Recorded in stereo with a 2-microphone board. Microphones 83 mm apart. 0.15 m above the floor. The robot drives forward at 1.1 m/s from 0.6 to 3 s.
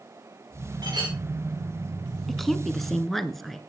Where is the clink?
60° right (ahead or behind), 7.5 m.